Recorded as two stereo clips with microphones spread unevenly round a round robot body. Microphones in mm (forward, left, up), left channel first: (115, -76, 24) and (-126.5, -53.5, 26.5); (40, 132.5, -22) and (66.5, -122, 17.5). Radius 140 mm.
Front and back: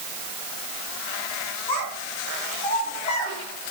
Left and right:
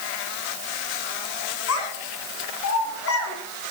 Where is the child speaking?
65° left, 5.5 m.